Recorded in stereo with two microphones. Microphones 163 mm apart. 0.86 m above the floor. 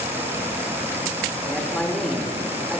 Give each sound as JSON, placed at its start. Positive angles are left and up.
{"t": 1.5, "sound": "a man speaking", "side_deg": 5, "distance_m": 3.0}